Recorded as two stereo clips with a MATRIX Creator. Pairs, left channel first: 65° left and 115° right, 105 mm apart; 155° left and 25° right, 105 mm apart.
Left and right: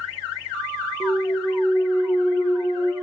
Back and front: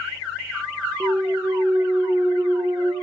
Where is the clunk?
45° left, 4.5 m.